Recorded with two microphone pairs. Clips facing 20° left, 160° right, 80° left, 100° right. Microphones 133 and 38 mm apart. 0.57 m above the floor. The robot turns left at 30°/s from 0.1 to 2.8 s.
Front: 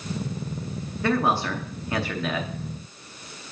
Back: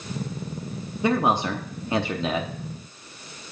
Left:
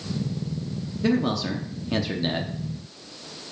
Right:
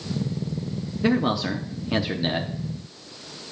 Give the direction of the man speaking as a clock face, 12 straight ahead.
4 o'clock.